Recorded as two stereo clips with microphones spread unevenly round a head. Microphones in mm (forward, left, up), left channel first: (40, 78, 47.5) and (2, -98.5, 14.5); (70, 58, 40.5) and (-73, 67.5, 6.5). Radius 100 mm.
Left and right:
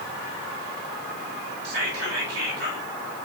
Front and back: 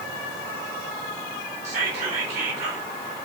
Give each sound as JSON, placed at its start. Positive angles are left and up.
{"t": 1.6, "sound": "whispering", "azimuth_deg": -130, "distance_m": 2.0}